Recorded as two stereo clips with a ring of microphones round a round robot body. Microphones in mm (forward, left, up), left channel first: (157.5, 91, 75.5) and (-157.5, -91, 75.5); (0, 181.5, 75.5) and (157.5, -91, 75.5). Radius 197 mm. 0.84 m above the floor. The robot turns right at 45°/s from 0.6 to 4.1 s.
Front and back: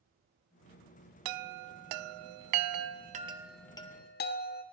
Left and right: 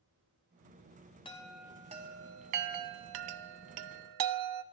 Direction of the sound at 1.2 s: 165° right.